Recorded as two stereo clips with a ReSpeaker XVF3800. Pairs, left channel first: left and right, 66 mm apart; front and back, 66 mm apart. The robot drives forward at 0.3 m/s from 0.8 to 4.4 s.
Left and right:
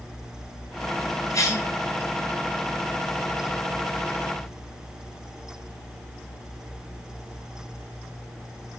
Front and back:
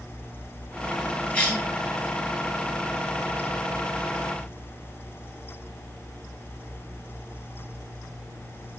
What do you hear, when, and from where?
1.3 s a cough: 65° left, 1.7 m; by 1.7 s 70° left, 1.6 m